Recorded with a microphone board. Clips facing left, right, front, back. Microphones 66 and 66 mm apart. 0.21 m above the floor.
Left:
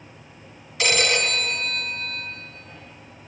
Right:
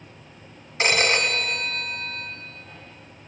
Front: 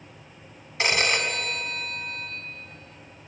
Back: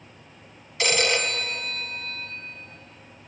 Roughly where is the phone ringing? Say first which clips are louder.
Right 1 dB, even; ahead right.